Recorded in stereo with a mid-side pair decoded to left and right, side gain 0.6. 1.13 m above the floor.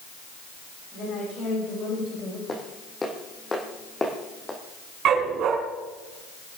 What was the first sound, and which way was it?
A woman speaking, 50° left.